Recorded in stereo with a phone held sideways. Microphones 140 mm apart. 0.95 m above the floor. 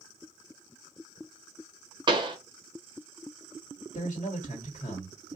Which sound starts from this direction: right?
A pop, at 2.1 s.